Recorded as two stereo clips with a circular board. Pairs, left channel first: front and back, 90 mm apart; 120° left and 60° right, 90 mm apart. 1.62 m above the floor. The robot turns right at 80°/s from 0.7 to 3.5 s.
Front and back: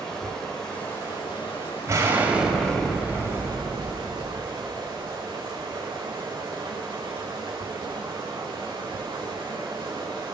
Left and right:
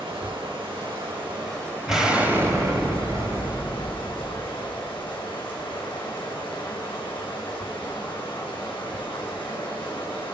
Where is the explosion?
150° right, 1.8 m; by 4.4 s 20° right, 1.8 m.